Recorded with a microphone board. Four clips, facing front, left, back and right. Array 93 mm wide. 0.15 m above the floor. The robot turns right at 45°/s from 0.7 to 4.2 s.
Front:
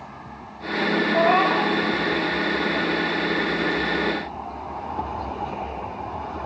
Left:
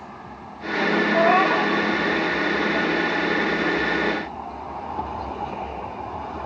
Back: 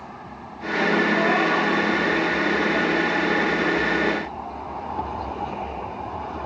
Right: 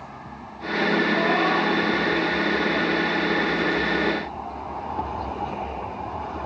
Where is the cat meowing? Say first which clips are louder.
Left 3 dB, front 2 dB; 55° left, 1.1 m; by 1.8 s 85° left, 1.1 m.